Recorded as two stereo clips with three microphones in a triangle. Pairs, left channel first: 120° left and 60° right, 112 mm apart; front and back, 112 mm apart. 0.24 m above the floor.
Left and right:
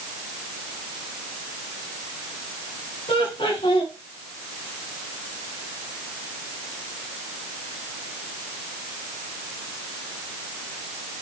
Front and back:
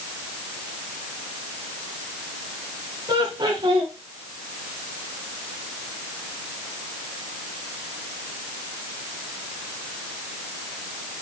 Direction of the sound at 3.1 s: 140° left.